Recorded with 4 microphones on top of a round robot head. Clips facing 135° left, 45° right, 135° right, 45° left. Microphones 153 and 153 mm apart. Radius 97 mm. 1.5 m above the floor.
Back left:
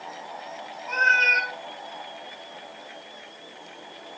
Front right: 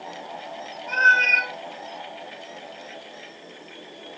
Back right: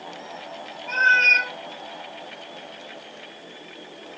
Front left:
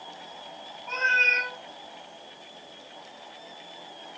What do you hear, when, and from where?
0.9 s a cat meowing: 30° right, 1.9 m